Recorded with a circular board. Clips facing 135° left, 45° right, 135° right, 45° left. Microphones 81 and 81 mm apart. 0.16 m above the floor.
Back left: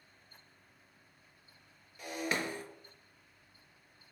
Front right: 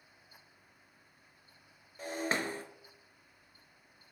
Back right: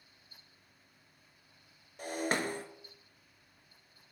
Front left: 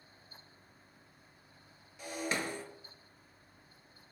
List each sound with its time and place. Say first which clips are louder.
2.0 s breaking glass: front right 1 dB, back right 3 dB; 95° right, 0.5 m